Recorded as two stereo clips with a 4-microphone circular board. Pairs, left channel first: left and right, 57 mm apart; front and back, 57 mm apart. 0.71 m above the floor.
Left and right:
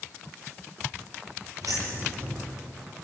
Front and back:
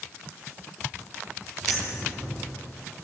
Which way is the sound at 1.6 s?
90° right.